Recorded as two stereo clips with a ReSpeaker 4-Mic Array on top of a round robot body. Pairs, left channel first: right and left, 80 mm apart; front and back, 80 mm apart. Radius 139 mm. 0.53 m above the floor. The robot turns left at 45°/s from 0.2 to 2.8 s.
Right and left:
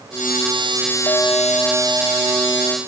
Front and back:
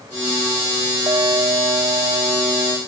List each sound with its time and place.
1.1 s a clink: 140° right; by 2.8 s 140° left